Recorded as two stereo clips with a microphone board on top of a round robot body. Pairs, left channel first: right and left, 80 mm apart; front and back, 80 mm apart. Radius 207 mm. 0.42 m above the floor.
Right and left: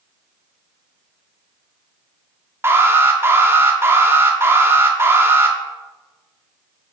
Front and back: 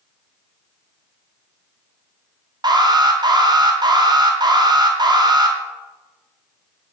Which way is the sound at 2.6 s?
150° left.